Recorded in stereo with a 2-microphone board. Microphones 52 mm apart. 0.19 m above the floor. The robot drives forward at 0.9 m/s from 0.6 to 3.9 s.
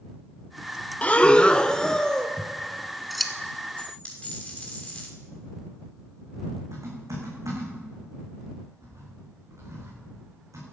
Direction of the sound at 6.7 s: 85° right.